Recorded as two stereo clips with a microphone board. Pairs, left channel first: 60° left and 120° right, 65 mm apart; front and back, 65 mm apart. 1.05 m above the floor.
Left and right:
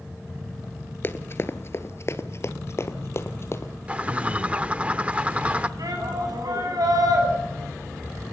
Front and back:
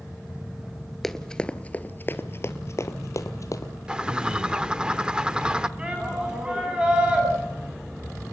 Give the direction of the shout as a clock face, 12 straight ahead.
4 o'clock.